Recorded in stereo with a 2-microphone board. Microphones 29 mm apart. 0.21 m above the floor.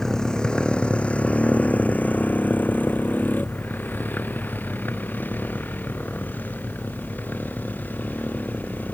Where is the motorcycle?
20° left (ahead or behind); by 8.9 s 75° left (ahead or behind).